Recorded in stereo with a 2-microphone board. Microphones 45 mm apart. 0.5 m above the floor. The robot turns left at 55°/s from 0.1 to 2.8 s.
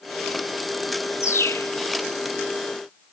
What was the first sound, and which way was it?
A bird, 85° left.